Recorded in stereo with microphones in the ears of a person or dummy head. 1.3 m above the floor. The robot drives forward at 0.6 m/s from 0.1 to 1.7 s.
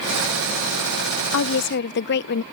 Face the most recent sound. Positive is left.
turn(degrees=60)  # may be behind; listen again after turning